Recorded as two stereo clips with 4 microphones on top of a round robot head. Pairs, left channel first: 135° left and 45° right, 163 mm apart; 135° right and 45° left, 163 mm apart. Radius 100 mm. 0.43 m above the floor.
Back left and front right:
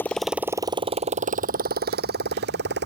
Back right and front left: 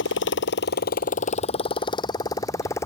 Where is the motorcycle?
145° right; by 2.9 s 60° right.